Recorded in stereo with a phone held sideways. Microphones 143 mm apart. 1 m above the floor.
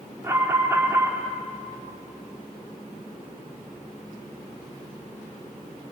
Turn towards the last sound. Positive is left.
turn(degrees=-20)  # may be behind; listen again after turning